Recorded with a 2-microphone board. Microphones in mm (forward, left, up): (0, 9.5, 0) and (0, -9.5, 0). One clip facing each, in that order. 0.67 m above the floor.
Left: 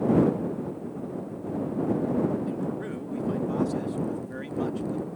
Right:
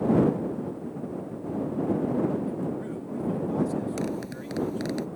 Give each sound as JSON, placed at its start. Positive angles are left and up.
{"t": 2.5, "sound": "a man speaking", "side_deg": 30}
{"t": 4.0, "sound": "a zipper", "side_deg": -85}